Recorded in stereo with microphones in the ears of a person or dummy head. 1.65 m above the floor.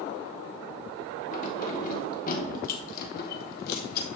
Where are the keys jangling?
45° left (ahead or behind), 3 m; by 4.0 s 55° left (ahead or behind), 1.6 m.